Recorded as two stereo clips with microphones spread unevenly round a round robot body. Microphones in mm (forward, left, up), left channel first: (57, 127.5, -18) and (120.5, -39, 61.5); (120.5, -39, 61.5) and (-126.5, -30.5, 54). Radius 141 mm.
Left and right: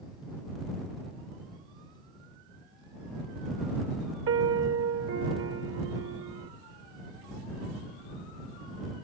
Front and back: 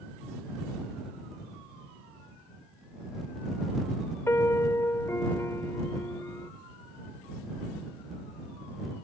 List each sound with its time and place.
4.3 s a piano: 80° right